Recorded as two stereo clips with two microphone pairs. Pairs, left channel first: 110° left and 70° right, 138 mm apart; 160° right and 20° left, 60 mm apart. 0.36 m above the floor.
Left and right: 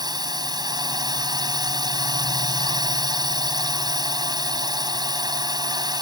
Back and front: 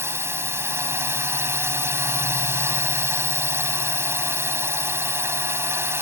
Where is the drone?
15° right.